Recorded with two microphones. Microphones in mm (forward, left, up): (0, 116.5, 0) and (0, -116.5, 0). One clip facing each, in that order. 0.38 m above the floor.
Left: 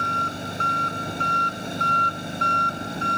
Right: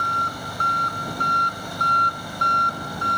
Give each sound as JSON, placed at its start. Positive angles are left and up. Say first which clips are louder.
{"t": 0.0, "sound": "an engine running", "louder": "left 2 dB", "side_deg": 20}